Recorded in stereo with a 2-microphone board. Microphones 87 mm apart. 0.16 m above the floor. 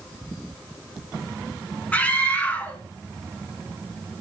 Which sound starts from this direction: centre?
A scream, at 1.9 s.